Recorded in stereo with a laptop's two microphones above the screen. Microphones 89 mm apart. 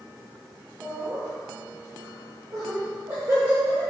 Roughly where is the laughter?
Right.